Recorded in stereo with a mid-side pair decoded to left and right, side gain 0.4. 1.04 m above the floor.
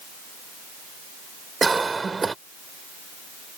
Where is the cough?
30° right.